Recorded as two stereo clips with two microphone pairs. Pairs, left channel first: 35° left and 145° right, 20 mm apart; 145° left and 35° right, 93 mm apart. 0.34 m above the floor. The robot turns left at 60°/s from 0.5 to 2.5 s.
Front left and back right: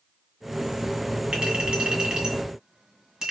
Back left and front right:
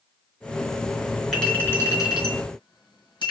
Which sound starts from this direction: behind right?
A clink, at 1.3 s.